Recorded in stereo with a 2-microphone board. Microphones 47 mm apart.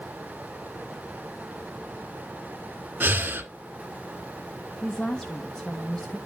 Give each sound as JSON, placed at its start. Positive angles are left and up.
{"t": 3.0, "sound": "breathing", "side_deg": -50, "distance_m": 1.4}
{"t": 4.8, "sound": "a woman speaking", "side_deg": 15, "distance_m": 0.8}